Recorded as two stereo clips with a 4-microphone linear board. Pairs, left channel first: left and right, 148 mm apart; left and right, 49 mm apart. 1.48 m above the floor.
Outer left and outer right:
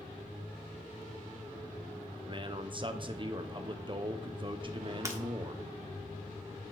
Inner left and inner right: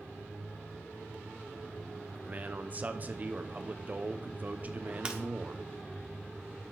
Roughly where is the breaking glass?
Right.